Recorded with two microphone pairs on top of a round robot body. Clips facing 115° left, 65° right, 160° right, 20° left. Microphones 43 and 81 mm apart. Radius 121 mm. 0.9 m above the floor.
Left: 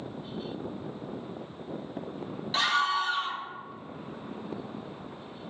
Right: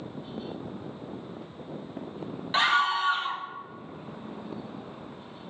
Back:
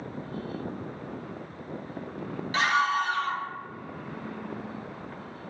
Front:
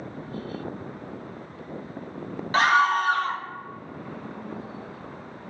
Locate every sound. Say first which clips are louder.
2.5 s a scream: right 3 dB, front 5 dB; 5° right, 0.6 m